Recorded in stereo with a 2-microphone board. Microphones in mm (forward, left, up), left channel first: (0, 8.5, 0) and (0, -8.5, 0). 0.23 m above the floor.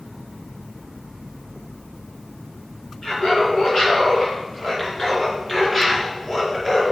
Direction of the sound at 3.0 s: 55° left (ahead or behind).